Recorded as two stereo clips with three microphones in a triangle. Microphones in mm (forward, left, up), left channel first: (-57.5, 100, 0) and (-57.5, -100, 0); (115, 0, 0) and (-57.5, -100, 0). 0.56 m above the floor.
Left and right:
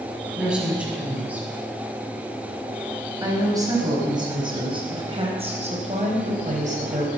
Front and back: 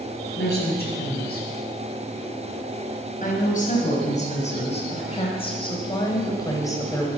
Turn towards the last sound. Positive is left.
turn(degrees=-45)